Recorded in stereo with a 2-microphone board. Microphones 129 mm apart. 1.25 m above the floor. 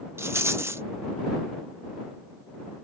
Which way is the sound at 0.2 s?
20° right (ahead or behind).